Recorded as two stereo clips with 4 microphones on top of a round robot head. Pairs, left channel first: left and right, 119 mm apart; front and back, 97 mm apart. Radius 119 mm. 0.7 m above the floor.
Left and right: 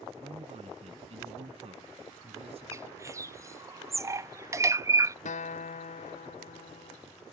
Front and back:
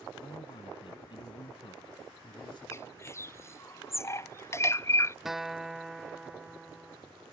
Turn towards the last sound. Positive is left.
turn(degrees=90)